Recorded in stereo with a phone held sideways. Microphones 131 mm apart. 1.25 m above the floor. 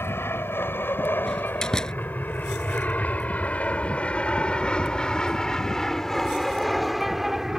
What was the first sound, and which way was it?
An aircraft, 20° left (ahead or behind).